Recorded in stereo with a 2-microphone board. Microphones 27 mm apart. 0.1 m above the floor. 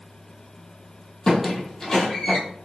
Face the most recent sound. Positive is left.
turn(degrees=25)  # may be behind; listen again after turning